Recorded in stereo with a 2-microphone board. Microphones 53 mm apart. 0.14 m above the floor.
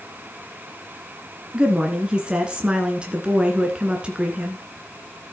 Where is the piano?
No piano in this recording.